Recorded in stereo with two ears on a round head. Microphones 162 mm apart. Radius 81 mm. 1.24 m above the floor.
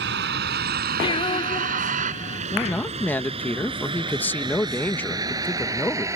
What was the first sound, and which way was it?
A vehicle, 65° right (ahead or behind).